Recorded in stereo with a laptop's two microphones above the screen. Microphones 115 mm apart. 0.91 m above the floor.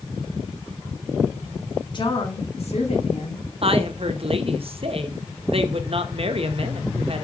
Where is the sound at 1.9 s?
40° left (ahead or behind), 1.7 m; by 3.5 s 75° left (ahead or behind), 2.5 m.